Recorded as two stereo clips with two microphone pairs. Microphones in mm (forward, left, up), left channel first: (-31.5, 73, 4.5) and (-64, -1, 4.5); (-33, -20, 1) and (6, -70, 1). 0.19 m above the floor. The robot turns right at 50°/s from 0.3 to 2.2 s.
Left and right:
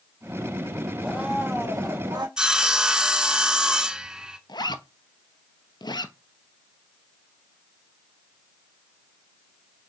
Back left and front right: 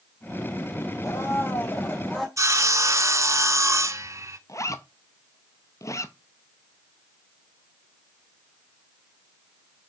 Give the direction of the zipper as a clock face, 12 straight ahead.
9 o'clock.